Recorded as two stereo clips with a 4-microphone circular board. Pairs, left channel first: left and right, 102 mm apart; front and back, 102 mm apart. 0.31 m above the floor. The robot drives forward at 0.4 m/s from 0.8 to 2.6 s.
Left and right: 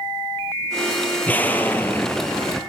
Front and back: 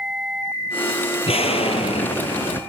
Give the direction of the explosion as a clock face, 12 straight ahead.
11 o'clock.